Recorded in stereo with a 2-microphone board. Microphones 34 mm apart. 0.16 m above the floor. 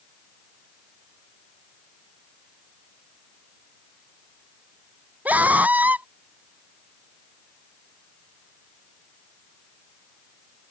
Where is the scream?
50° right (ahead or behind).